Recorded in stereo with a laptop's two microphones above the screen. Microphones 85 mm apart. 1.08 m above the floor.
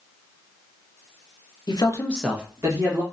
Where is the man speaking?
60° left (ahead or behind), 0.8 m; by 3.0 s 45° right (ahead or behind), 1.4 m.